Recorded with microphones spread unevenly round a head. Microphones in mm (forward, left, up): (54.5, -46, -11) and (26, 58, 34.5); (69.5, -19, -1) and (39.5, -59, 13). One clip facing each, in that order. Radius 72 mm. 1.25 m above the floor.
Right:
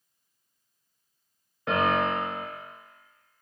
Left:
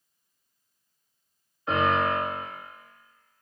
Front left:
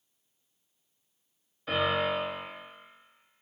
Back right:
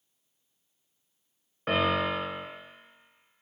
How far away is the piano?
About 1.8 m.